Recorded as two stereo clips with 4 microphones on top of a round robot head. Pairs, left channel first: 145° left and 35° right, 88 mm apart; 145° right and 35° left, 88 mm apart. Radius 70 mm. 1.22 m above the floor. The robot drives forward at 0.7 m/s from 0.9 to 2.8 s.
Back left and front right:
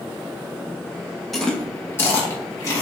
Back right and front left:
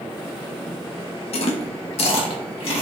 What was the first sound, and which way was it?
Chewing, 125° right.